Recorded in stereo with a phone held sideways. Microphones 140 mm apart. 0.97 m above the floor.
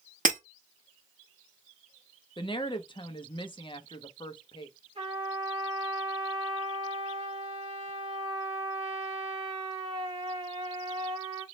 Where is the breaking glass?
70° right (ahead or behind), 1.2 m.